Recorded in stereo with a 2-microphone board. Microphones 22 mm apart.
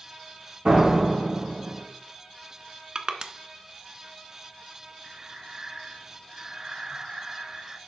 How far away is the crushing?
About 1.0 m.